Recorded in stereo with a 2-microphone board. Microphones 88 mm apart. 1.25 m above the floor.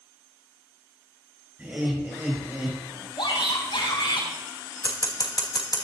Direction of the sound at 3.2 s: 75° left (ahead or behind).